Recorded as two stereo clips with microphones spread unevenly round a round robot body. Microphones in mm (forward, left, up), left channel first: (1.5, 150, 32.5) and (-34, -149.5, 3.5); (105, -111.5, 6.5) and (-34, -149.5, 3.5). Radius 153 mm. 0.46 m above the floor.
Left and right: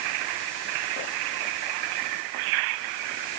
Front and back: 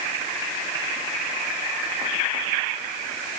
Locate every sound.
Only background noise.